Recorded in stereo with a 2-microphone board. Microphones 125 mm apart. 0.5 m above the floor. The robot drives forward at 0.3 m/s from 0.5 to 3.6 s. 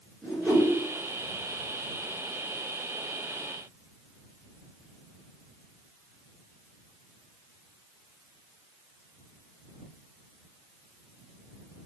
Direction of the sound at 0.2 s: Centre (ahead or behind).